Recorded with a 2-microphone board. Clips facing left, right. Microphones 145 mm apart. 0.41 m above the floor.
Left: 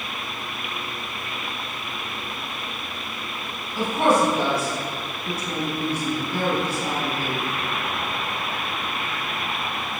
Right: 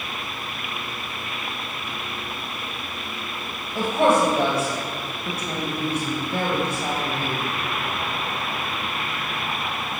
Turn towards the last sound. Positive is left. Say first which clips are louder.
# right 1 dB
turn(degrees=-60)  # may be behind; listen again after turning